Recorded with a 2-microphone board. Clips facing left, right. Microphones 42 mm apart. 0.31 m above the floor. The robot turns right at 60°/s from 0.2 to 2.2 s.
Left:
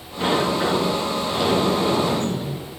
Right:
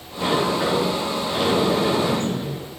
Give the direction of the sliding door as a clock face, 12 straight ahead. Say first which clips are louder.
Even; 7 o'clock.